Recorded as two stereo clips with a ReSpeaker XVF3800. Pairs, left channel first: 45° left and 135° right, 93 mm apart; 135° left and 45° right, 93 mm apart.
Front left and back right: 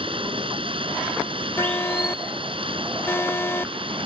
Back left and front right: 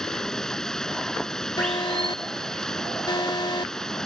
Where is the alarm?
105° left.